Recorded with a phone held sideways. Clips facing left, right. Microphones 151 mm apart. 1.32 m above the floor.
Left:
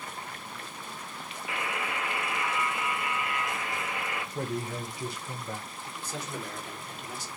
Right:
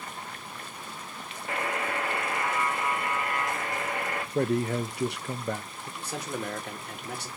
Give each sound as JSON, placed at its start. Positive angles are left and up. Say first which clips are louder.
{"t": 1.5, "sound": "a buzzer", "louder": "right 4 dB", "side_deg": -45, "distance_m": 0.9}
{"t": 4.3, "sound": "a man speaking", "louder": "right 9 dB", "side_deg": -70, "distance_m": 0.7}
{"t": 6.0, "sound": "a man speaking", "louder": "right 4 dB", "side_deg": -65, "distance_m": 1.5}